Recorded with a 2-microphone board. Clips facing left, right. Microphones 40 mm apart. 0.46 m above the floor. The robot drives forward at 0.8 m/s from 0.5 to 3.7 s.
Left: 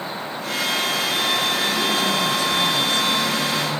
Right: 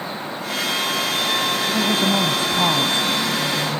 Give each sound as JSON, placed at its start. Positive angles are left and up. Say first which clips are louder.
{"t": 1.7, "sound": "a woman speaking", "louder": "right 2 dB", "side_deg": -50}